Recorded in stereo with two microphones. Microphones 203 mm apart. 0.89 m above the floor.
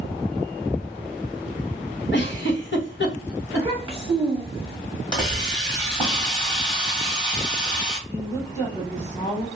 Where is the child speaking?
15° right (ahead or behind), 0.7 m.